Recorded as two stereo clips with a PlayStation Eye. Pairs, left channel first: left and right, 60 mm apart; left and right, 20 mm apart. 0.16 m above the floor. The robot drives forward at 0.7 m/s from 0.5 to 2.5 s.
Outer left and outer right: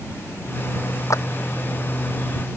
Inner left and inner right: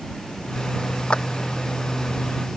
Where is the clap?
55° left (ahead or behind).